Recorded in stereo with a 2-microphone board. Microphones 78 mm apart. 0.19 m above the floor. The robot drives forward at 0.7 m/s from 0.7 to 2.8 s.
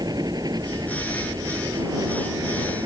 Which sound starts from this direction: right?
A helicopter, at 0.0 s.